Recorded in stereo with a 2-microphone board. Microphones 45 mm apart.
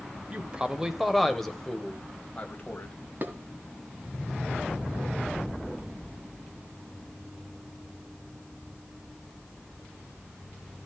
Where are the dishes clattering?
45° right (ahead or behind), 1.7 m.